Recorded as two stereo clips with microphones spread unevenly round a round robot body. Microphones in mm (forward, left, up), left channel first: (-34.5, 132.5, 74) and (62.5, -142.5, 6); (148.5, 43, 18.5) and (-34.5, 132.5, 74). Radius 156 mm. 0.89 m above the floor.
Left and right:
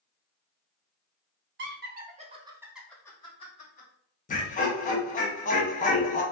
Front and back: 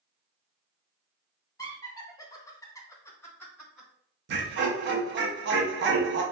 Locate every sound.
1.6 s laughter: 80° right, 0.8 m; by 3.9 s 45° left, 0.9 m
4.3 s laughter: straight behind, 0.6 m